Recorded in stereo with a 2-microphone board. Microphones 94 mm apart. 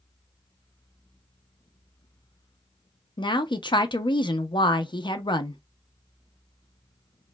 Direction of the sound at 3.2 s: 55° left (ahead or behind).